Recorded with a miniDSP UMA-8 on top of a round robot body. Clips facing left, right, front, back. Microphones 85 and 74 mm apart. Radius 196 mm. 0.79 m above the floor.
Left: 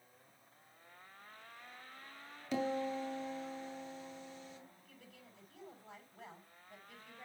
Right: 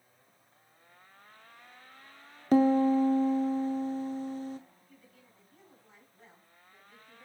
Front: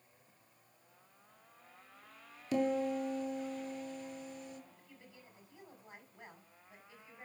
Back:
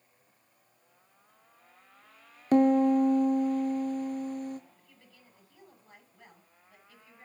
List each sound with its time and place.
2.5 s a piano: 140° right, 0.5 m
4.8 s a woman speaking: 70° left, 6 m